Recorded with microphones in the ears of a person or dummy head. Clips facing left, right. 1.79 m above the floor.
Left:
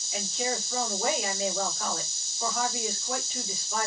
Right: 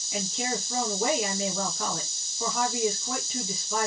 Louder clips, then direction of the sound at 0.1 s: Right 1 dB; 65° right (ahead or behind).